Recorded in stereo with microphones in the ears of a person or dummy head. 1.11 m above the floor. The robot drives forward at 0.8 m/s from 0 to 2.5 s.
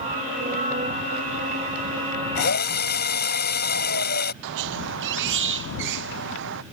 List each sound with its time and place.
2.4 s a drill: 45° left (ahead or behind)
4.4 s a squeak: 60° right (ahead or behind)